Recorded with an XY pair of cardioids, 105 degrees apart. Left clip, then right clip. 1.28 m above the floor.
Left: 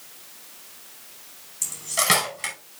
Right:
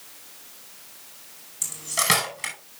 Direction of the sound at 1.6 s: Straight ahead.